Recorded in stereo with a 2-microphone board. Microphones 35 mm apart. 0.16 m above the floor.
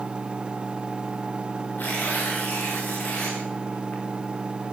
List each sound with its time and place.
1.8 s tearing paper: 60° left (ahead or behind), 6.5 m